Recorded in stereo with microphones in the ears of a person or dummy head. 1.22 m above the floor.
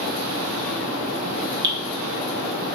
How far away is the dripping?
About 1.4 m.